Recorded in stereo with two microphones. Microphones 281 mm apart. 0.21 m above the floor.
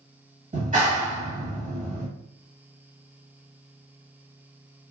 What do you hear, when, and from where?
0.5 s a clap: 30° right (ahead or behind), 1.1 m